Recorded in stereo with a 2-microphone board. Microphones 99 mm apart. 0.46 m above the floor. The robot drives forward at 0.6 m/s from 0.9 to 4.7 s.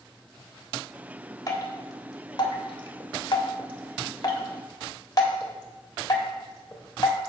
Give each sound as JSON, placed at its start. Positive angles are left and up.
{"t": 1.5, "sound": "dripping", "side_deg": 35, "distance_m": 1.5}